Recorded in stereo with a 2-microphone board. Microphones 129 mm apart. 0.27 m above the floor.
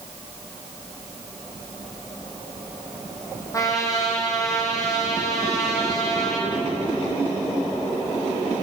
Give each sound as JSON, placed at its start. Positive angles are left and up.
{"t": 3.5, "sound": "a trumpet", "side_deg": 25, "distance_m": 8.0}